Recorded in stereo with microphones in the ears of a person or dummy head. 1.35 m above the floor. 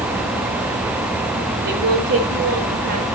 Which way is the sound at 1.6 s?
65° right (ahead or behind).